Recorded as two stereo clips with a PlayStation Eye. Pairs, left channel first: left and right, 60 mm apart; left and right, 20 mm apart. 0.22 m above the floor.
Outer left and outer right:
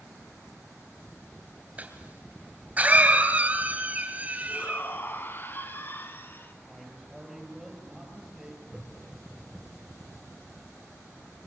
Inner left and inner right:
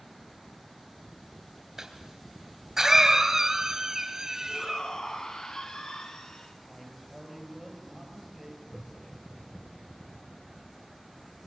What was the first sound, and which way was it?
A cough, 25° right (ahead or behind).